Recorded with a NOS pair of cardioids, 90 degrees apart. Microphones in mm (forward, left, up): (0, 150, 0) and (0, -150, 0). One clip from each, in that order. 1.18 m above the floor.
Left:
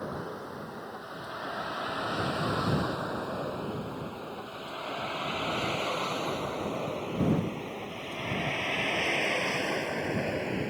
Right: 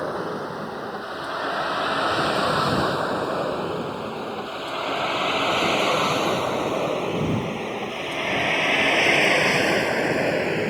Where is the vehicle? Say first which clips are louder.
Right 10 dB; 65° right.